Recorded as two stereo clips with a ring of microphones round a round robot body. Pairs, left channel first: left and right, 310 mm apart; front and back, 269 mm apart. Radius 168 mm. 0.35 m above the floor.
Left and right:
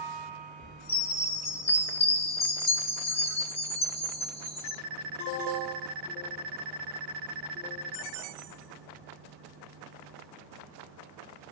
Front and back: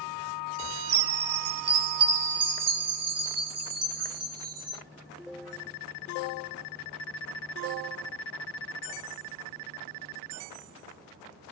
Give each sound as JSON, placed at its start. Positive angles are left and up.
{"t": 0.9, "sound": "a chime", "azimuth_deg": 160, "distance_m": 0.8}